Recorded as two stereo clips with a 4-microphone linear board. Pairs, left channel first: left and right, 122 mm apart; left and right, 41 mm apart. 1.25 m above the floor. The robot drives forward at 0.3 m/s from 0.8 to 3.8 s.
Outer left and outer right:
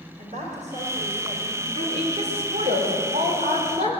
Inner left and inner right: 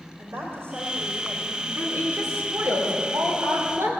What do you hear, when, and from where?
0.2 s a woman speaking: 85° right, 4 m; by 1.6 s 90° right, 4 m
1.8 s a woman speaking: 60° right (ahead or behind), 4.5 m; by 3.9 s 55° right (ahead or behind), 4.5 m